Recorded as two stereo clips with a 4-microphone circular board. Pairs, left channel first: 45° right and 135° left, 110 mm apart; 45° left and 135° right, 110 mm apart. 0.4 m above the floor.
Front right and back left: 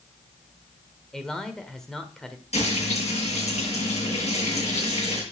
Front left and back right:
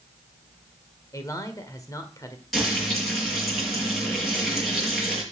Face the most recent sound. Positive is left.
turn(degrees=-45)